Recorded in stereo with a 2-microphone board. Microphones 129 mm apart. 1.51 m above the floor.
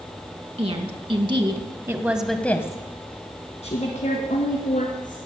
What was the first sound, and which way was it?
A woman speaking, 55° right (ahead or behind).